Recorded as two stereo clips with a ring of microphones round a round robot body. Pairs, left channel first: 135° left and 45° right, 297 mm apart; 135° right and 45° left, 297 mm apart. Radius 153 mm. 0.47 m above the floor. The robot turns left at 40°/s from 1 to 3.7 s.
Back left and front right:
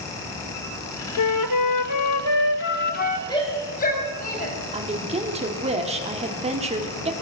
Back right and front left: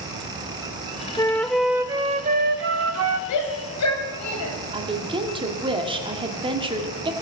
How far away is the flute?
About 0.6 m.